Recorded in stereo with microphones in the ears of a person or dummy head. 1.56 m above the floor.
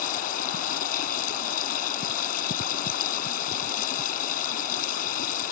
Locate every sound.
0.0 s running water: 50° left (ahead or behind)